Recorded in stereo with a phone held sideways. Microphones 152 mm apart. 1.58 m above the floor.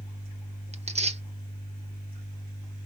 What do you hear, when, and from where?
0.7 s tearing paper: 45° right (ahead or behind), 1.0 m